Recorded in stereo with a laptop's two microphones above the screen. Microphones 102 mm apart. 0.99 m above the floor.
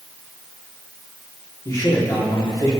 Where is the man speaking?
40° left (ahead or behind), 3 m.